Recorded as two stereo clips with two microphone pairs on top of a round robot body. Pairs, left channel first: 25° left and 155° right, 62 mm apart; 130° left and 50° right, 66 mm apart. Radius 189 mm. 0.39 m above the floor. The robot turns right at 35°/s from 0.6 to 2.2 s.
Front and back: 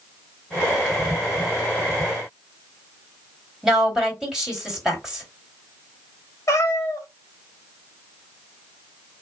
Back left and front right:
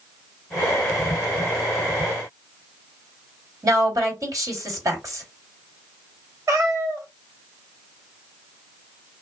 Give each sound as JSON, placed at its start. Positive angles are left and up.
{"t": 3.6, "sound": "a woman speaking", "azimuth_deg": -70, "distance_m": 1.9}
{"t": 6.5, "sound": "a cat meowing", "azimuth_deg": -10, "distance_m": 1.1}